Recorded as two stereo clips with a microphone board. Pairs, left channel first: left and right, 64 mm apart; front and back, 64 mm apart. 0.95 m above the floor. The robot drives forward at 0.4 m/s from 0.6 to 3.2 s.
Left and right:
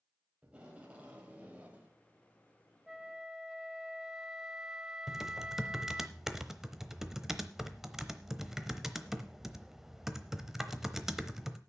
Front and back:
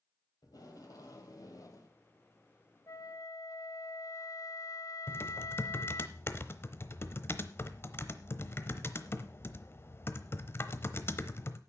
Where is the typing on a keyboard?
10° right, 0.8 m.